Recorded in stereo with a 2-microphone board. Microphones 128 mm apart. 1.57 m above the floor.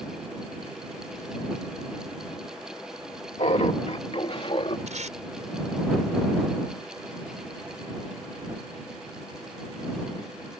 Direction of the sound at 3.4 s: 60° left (ahead or behind).